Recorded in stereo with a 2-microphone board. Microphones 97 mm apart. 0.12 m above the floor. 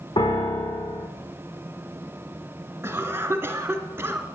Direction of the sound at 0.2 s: 55° left (ahead or behind).